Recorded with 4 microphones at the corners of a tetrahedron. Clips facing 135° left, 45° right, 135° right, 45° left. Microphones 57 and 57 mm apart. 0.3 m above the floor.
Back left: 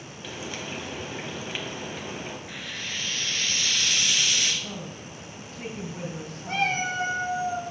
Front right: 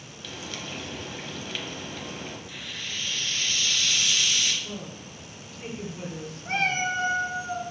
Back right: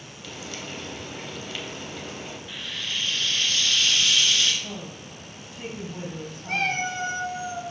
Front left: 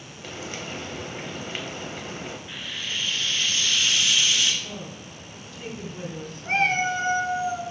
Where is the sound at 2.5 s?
115° left, 1.4 m.